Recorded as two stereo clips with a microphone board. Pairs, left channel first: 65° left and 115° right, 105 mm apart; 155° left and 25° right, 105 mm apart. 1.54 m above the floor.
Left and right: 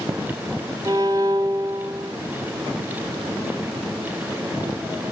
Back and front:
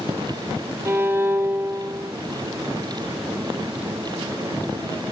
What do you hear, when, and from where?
0.8 s a violin: 80° right, 0.8 m